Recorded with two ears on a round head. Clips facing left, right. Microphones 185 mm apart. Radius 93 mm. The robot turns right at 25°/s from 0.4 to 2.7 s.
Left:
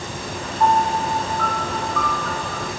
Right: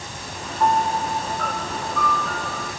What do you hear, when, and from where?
0.6 s a piano: 25° left, 1.2 m; by 2.7 s 80° left, 1.2 m